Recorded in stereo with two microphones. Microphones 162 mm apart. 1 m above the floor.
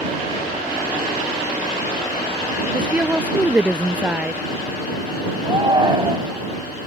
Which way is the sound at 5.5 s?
30° right (ahead or behind).